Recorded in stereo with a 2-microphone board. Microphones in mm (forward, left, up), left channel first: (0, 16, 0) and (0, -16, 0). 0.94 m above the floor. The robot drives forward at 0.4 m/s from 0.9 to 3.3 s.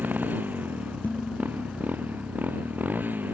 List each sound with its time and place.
0.0 s a motorcycle: 80° right; by 3.3 s 85° right
1.0 s dishes clattering: 65° left (ahead or behind); by 1.9 s 60° left (ahead or behind)